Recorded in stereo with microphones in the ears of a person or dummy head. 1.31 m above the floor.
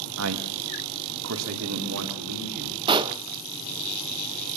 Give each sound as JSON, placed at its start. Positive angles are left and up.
{"t": 0.2, "sound": "a man speaking", "side_deg": -80, "distance_m": 1.3}
{"t": 2.9, "sound": "a pop", "side_deg": -25, "distance_m": 0.8}